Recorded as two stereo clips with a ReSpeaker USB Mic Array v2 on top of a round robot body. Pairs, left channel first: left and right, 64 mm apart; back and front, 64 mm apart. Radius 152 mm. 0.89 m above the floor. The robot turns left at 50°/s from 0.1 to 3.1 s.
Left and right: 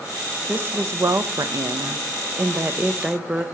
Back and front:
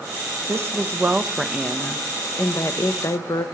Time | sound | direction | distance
0.5 | a woman speaking | 35° right | 0.7 m